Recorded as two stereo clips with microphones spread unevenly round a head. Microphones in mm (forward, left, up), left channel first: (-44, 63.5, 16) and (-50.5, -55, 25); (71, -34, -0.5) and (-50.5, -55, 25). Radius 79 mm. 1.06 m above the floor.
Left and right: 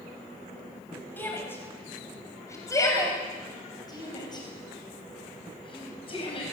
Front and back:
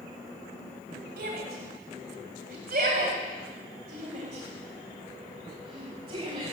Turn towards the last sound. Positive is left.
turn(degrees=125)